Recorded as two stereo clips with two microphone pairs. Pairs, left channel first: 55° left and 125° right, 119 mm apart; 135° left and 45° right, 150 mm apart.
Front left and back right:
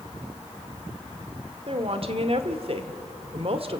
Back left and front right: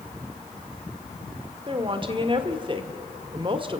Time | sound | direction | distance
1.7 | a woman speaking | 95° right | 1.7 m